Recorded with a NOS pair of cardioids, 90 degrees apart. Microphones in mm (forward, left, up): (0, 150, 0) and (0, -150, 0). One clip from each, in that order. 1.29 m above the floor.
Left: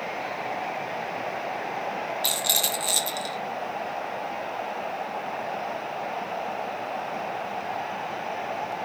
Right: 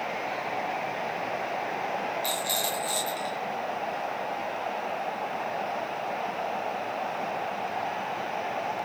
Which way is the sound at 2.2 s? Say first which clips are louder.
Left 7 dB; 60° left.